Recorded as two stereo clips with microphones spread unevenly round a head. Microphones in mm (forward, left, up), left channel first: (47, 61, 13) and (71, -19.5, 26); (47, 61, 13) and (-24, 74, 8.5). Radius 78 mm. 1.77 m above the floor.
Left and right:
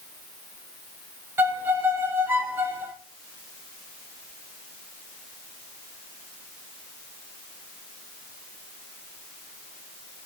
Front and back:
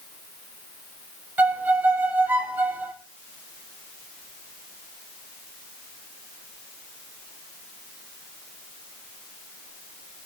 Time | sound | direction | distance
1.4 | a violin | 120° right | 0.8 m